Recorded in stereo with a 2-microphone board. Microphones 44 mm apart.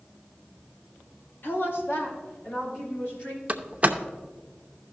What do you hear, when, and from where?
1.4 s a woman speaking: 55° left (ahead or behind), 1.6 m; by 3.4 s 60° left (ahead or behind), 4 m
3.5 s a door slam: 35° right (ahead or behind), 0.7 m